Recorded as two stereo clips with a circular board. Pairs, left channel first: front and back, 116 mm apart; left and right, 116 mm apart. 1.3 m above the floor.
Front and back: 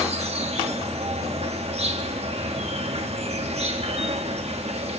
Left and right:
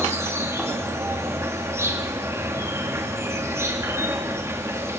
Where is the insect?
155° right, 3 m.